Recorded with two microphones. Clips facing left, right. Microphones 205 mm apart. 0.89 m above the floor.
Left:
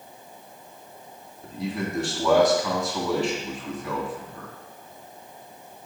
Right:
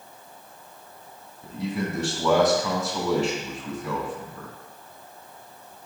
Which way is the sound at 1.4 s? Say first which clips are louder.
Right 1 dB; 5° right (ahead or behind).